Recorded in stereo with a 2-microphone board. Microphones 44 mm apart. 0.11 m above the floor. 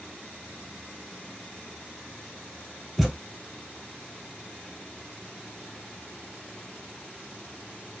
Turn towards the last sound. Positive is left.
turn(degrees=0)  # may be behind; listen again after turning